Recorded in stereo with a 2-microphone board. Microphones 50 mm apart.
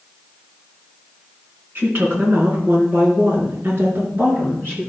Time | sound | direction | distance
1.8 | a woman speaking | 40° right (ahead or behind) | 4 m